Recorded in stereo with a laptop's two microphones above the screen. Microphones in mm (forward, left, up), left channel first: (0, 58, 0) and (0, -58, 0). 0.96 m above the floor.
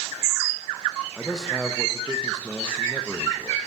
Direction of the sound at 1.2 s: 5° right (ahead or behind).